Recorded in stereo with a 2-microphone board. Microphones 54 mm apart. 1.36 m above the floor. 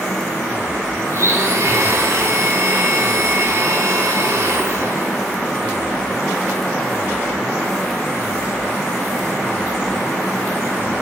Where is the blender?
60° right (ahead or behind), 1.8 m.